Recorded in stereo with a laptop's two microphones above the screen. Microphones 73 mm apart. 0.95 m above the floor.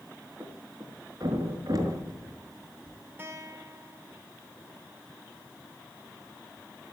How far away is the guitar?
About 4 m.